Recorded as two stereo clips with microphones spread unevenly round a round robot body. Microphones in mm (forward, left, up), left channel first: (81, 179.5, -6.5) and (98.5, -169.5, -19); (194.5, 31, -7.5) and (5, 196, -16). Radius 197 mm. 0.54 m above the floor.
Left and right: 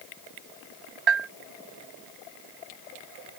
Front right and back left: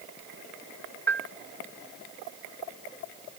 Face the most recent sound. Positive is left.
turn(degrees=-125)